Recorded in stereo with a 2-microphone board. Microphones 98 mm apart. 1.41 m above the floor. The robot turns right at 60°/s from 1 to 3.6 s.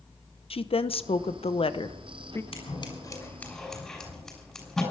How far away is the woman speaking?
About 0.8 m.